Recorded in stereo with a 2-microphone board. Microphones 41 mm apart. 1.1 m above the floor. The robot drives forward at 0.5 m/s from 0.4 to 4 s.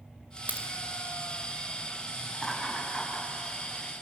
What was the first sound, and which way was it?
A crack, 45° right (ahead or behind).